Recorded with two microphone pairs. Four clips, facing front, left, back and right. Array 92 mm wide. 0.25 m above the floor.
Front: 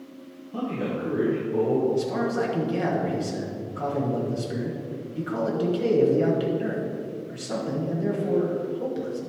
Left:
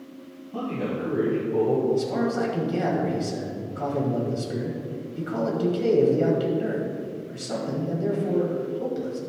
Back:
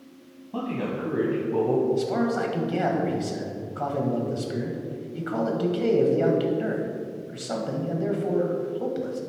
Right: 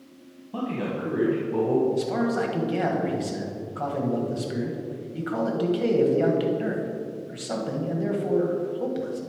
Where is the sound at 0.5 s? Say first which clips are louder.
Even, even; 145° right, 1.9 m.